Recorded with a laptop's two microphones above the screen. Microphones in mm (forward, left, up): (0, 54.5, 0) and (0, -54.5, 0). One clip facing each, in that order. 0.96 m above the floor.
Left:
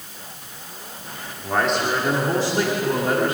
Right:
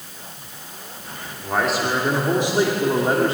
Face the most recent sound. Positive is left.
turn(degrees=-35)  # may be behind; listen again after turning